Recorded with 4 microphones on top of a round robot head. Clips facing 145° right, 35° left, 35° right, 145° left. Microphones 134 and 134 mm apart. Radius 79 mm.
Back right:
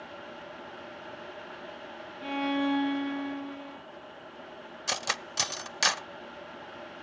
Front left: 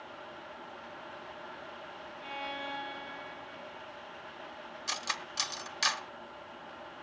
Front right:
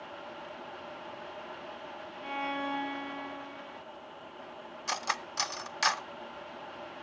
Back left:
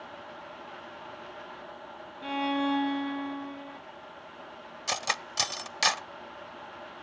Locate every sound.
2.2 s a violin: 160° right, 0.7 m
4.9 s cutlery clinking: 155° right, 0.6 m